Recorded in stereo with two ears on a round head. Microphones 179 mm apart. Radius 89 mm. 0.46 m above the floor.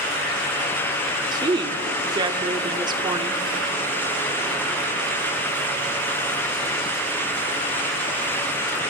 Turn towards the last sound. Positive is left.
turn(degrees=-20)  # may be behind; listen again after turning